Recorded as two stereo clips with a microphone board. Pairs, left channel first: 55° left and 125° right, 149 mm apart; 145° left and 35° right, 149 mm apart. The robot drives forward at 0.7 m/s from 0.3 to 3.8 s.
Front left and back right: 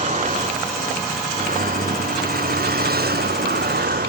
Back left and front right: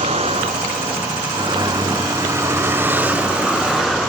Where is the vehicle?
85° right; by 4.1 s 125° right.